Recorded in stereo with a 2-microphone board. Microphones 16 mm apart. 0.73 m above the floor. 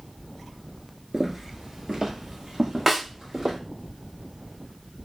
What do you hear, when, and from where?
1.1 s footsteps: 25° right (ahead or behind), 0.8 m; by 3.6 s 45° right (ahead or behind), 2 m
2.9 s a snare drum: 20° right (ahead or behind), 0.9 m